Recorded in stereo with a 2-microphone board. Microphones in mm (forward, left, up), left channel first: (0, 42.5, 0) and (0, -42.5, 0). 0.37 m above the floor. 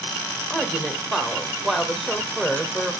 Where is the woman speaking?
Centre (ahead or behind), 1.1 m.